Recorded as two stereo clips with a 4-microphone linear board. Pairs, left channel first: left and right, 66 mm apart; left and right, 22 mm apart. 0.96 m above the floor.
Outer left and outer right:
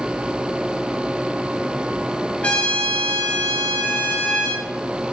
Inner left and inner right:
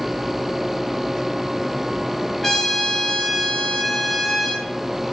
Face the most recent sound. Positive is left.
turn(degrees=20)  # may be behind; listen again after turning